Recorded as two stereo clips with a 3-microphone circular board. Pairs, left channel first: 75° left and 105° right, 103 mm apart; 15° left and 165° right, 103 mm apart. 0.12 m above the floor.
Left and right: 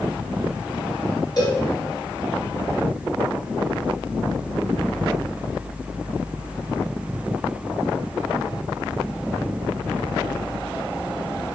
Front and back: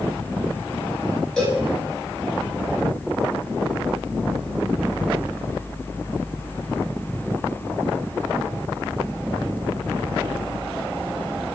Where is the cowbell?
95° left, 1.8 m.